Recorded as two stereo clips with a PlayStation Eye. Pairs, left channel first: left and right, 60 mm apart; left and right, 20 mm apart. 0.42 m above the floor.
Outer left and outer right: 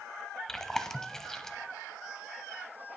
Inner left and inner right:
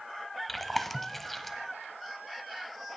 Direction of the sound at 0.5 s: 5° left (ahead or behind).